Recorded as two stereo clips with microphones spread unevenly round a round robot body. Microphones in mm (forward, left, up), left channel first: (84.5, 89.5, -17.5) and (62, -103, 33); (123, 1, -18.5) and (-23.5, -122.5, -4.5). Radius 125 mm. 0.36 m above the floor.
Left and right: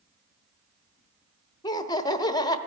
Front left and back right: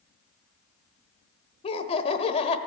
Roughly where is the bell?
No bell in this recording.